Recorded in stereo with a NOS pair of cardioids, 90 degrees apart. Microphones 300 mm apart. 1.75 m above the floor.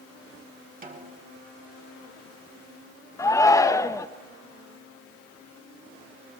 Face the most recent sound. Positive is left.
turn(degrees=10)